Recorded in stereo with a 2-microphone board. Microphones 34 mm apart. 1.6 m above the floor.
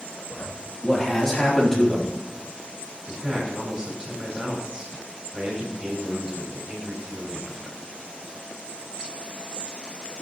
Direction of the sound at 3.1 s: 20° right (ahead or behind).